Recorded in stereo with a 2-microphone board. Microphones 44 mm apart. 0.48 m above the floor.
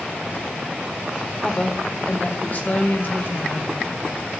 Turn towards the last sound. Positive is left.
turn(degrees=50)  # may be behind; listen again after turning